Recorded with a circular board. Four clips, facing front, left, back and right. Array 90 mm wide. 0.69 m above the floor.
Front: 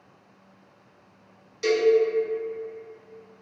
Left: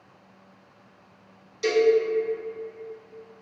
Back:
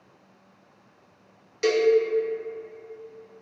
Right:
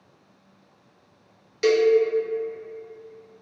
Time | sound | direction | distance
1.6 | a cowbell | 125° right | 0.5 m